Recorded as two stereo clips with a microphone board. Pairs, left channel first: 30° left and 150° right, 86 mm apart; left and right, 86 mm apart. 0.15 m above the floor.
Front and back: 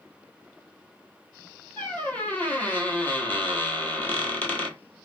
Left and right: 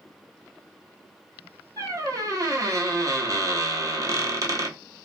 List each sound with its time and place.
1.8 s a squeak: 40° right, 0.8 m